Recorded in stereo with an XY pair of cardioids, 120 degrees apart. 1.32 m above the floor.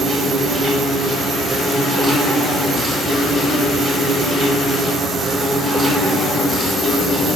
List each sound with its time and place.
0.0 s an insect: 40° right, 4 m